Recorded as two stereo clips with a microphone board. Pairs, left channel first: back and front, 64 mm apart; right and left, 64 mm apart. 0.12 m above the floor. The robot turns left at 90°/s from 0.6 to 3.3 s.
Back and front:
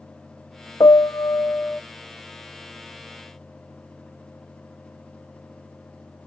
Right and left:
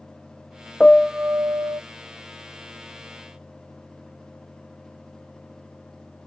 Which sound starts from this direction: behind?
A piano, at 0.8 s.